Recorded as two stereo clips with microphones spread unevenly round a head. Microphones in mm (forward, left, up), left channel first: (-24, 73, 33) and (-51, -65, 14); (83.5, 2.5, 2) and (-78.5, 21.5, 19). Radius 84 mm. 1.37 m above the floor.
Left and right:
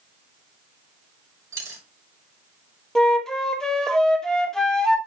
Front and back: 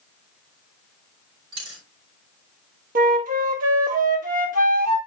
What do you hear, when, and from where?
1.5 s a dropped coin: 175° right, 4.5 m
3.0 s a flute: 160° left, 1.3 m